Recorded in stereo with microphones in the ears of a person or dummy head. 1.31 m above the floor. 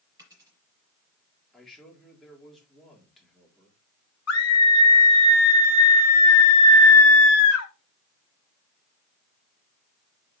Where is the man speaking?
Centre (ahead or behind), 3.5 m.